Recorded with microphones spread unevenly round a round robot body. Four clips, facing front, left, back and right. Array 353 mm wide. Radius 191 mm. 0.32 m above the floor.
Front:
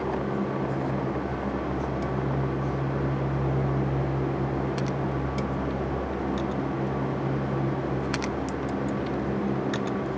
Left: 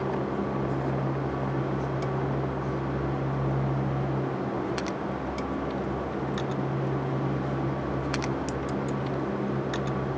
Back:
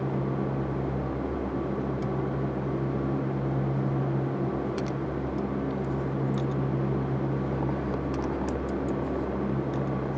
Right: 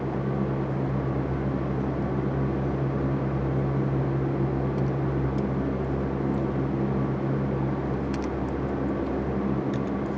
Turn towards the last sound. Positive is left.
No sound to turn to.